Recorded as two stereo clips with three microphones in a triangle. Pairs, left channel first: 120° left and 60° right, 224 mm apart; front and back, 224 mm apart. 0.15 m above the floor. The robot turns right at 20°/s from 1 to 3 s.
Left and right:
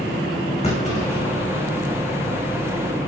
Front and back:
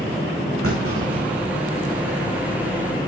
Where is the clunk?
Straight behind, 7 m; by 1.8 s 165° right, 7 m.